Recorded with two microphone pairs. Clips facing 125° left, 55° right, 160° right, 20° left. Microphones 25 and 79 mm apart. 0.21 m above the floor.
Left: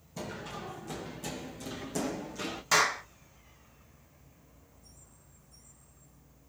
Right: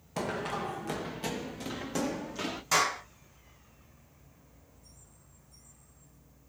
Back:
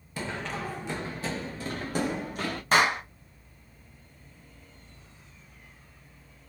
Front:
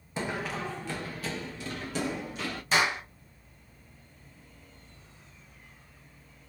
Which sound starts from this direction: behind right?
A clap, at 2.7 s.